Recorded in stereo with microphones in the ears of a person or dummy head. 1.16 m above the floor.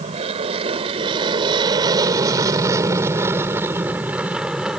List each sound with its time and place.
0.0 s an aircraft: 35° right (ahead or behind); by 4.8 s 5° right (ahead or behind)